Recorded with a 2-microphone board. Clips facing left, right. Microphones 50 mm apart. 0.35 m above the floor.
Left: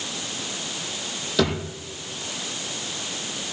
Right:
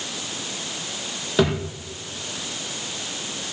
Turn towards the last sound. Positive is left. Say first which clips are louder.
# right 2 dB
turn(degrees=-25)  # may be behind; listen again after turning